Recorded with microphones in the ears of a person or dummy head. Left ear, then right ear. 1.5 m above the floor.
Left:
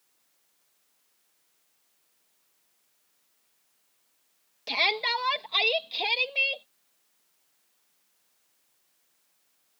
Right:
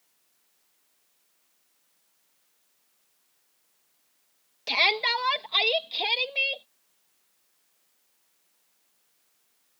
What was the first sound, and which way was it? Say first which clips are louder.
A shout: right 2 dB; 5° right (ahead or behind).